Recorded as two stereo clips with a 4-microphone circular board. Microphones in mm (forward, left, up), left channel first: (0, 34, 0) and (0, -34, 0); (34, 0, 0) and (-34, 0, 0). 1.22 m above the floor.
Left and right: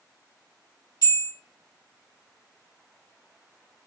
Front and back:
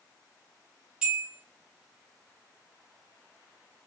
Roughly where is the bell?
Left.